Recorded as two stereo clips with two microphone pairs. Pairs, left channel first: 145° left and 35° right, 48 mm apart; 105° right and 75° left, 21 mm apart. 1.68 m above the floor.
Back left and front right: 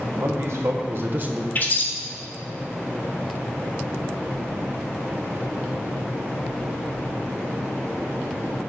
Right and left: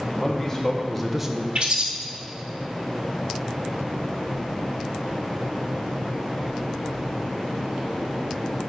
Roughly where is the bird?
Left.